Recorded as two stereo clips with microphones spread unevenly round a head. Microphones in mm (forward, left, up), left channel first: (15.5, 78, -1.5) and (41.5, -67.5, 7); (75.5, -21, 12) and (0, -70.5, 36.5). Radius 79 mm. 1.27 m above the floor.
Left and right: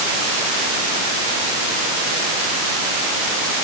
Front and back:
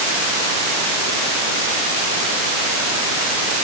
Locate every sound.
Only background noise.